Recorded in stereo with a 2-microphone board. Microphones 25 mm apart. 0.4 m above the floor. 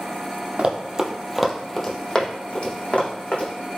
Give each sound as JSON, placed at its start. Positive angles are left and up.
{"t": 0.6, "sound": "running footsteps", "side_deg": -45, "distance_m": 0.6}